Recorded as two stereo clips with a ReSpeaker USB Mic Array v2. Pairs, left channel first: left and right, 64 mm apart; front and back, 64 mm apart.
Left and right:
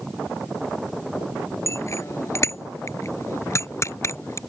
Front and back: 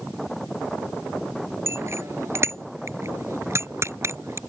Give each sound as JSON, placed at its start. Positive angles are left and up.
{"t": 1.7, "sound": "a bicycle bell", "azimuth_deg": 135}